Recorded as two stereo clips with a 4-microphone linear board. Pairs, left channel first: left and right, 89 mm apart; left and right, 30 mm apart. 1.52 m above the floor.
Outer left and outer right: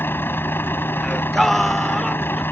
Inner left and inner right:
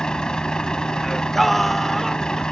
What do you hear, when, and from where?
0.0 s a vehicle: 25° left (ahead or behind)
1.0 s singing: centre (ahead or behind)